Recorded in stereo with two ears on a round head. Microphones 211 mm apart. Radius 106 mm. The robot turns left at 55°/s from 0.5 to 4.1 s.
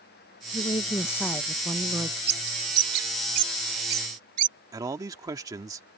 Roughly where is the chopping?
No chopping in this recording.